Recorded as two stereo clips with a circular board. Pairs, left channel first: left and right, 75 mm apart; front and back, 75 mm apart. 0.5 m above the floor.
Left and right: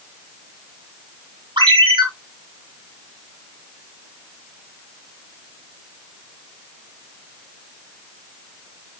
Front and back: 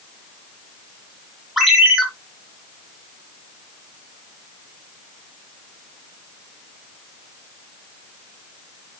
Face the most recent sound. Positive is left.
turn(degrees=-95)